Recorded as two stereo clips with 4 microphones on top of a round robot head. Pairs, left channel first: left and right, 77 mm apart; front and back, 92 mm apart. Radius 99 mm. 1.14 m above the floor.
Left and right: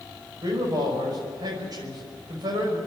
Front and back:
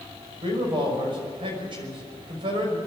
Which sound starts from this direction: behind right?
A man speaking, at 0.4 s.